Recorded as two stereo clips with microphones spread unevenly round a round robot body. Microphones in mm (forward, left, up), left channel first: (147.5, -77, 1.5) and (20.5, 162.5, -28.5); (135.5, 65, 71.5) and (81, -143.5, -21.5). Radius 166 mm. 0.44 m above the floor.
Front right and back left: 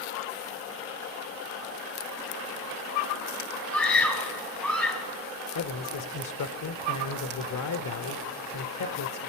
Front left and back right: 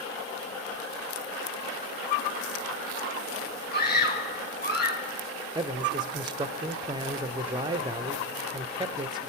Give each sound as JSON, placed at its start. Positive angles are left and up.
{"t": 3.7, "sound": "a scream", "azimuth_deg": 25, "distance_m": 3.5}
{"t": 5.5, "sound": "a man speaking", "azimuth_deg": -65, "distance_m": 1.2}